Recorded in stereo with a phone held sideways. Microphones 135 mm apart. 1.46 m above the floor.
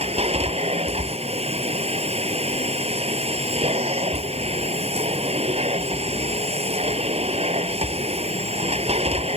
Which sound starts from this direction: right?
A machine running, at 0.0 s.